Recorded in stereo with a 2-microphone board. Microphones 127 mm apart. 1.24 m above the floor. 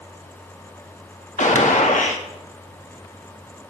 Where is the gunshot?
75° left (ahead or behind), 1.8 m.